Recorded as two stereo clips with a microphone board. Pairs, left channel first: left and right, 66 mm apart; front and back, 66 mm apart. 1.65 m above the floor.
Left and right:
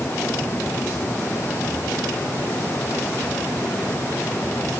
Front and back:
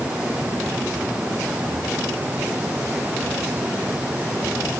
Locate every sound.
Only background noise.